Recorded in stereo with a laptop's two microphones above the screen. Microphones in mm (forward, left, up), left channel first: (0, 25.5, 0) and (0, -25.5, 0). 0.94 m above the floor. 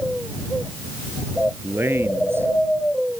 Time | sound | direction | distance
1.6 | a man speaking | 50° right (ahead or behind) | ?